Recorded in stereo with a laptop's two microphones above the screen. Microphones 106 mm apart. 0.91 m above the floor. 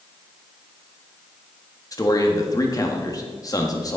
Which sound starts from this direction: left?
A man speaking, at 1.9 s.